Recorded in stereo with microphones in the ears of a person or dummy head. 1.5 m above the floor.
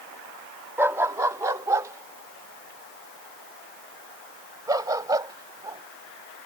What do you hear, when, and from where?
0.8 s a dog barking: 10° right (ahead or behind); by 5.8 s 20° right (ahead or behind)